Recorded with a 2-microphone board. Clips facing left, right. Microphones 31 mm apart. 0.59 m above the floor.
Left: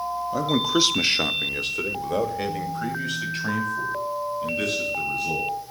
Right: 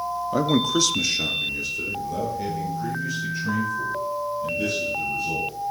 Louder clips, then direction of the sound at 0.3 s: Right 1 dB; 25° right (ahead or behind).